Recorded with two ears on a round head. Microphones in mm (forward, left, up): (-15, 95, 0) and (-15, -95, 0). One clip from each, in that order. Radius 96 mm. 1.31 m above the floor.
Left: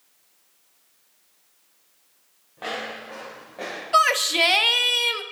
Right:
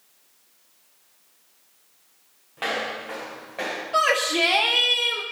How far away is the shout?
About 1.6 m.